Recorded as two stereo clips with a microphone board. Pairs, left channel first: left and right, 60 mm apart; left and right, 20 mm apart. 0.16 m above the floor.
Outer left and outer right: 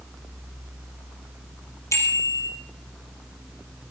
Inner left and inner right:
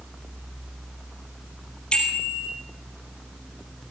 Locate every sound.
1.9 s a bicycle bell: 50° left (ahead or behind), 3 m